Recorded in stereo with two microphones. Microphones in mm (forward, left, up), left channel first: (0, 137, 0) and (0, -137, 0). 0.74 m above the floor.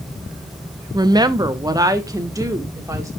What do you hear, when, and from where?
0.9 s a woman speaking: 15° right (ahead or behind), 0.5 m; by 3.1 s 10° right (ahead or behind), 1.6 m